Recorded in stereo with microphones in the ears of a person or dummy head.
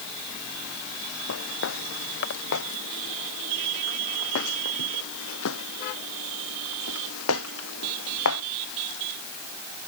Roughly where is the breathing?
No breathing in this recording.